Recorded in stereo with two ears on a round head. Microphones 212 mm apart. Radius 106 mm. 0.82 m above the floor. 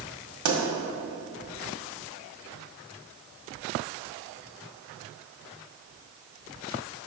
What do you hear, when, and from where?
0.5 s a pop: 80° right, 1.7 m